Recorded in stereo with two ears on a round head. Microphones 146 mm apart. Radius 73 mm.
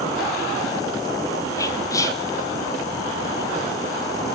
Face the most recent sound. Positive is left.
turn(degrees=20)  # may be behind; listen again after turning